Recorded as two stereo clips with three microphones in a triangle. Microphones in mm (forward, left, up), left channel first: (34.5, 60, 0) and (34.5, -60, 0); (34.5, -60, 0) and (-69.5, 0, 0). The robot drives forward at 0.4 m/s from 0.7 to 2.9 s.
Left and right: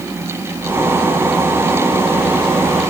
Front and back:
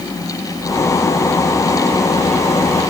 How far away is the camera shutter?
No camera shutter in this recording.